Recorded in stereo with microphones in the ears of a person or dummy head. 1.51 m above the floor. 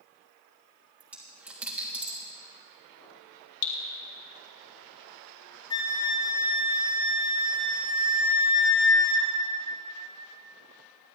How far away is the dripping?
About 1.4 m.